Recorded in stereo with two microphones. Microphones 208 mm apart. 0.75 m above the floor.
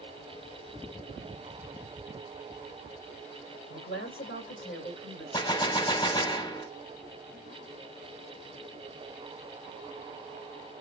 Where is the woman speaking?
75° left (ahead or behind), 3 m.